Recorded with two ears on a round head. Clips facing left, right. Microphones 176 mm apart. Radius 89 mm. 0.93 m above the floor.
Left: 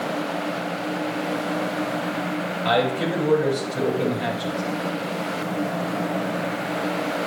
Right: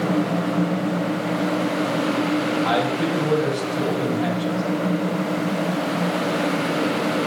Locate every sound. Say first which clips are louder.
2.6 s a man speaking: right 1 dB; 45° left (ahead or behind), 5.5 m